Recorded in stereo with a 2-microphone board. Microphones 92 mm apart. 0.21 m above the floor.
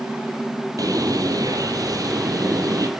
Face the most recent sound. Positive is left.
turn(degrees=-40)  # may be behind; listen again after turning